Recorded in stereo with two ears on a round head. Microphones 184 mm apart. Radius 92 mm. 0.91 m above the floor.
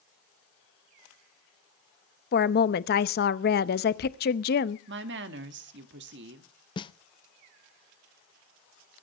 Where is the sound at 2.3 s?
50° left (ahead or behind), 0.7 m.